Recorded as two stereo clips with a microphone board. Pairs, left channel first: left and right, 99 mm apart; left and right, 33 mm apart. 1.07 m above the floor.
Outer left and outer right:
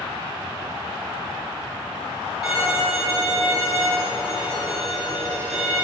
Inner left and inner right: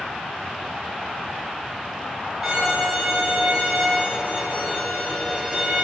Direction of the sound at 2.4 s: 5° right (ahead or behind).